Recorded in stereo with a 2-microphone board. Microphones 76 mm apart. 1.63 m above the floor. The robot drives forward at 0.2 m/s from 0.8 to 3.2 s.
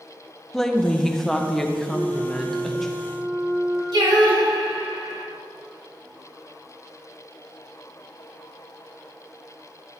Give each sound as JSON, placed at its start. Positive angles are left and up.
{"t": 0.5, "sound": "a woman speaking", "side_deg": 5, "distance_m": 0.6}
{"t": 1.9, "sound": "a flute", "side_deg": -80, "distance_m": 2.5}
{"t": 3.9, "sound": "singing", "side_deg": -85, "distance_m": 1.7}